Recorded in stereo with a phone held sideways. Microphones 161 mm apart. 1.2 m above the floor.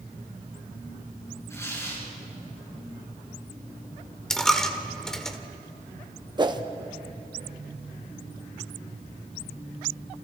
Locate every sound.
1.5 s tearing paper: 15° left (ahead or behind), 7 m
4.3 s a dropped coin: 5° left (ahead or behind), 1.6 m
6.4 s a whoosh: 25° right (ahead or behind), 1.0 m